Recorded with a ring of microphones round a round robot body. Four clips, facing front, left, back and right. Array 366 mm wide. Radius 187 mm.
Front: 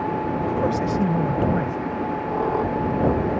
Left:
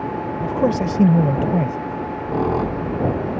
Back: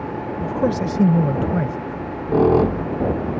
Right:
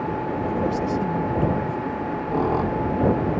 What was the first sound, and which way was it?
A man speaking, 130° left.